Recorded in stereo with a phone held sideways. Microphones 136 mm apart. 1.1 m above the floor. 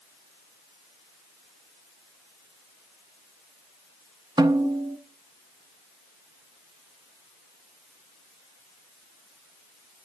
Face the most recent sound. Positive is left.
turn(degrees=-30)  # may be behind; listen again after turning